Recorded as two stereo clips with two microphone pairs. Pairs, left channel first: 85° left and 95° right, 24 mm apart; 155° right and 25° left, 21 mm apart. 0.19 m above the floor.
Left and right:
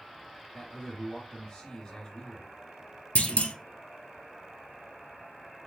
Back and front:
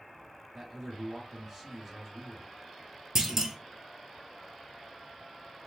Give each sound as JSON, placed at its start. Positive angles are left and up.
{"t": 0.5, "sound": "a man speaking", "azimuth_deg": 90, "distance_m": 1.1}
{"t": 3.1, "sound": "a clunk", "azimuth_deg": 100, "distance_m": 0.7}